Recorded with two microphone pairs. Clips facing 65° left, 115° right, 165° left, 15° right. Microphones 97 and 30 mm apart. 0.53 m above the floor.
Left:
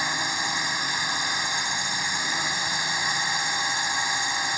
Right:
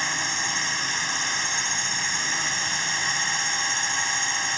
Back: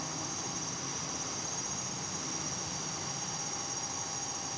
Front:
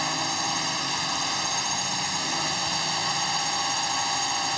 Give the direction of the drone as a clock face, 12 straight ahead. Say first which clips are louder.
Left 1 dB, front 13 dB; 12 o'clock.